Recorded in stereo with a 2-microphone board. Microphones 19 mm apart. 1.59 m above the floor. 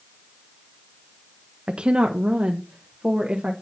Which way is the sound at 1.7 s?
50° right (ahead or behind).